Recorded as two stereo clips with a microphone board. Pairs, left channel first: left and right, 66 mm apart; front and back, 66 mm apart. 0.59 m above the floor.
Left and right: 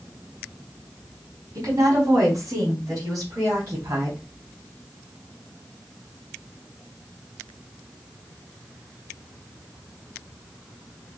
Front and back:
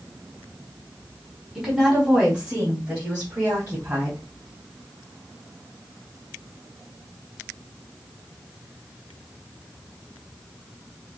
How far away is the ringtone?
No ringtone in this recording.